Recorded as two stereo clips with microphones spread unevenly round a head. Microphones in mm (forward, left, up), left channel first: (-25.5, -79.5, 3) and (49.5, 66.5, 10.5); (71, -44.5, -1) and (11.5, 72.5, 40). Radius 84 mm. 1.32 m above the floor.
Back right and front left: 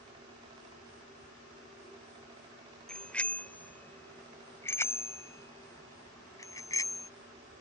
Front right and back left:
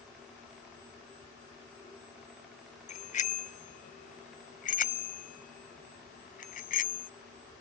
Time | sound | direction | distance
2.9 | a bicycle bell | 30° right | ?